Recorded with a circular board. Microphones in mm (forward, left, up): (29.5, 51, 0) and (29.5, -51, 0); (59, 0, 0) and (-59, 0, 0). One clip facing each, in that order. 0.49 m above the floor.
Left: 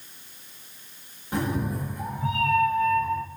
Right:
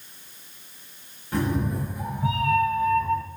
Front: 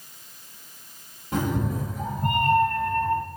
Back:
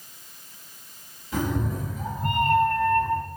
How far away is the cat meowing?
About 0.8 m.